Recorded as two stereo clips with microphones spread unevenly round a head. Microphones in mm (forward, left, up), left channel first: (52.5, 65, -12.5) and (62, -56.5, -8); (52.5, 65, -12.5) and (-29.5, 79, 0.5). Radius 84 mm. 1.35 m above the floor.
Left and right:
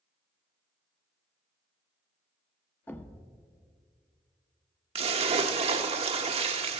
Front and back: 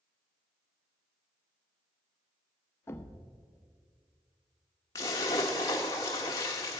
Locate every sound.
2.9 s a thud: 30° left, 0.7 m
5.0 s a splash: 75° right, 0.9 m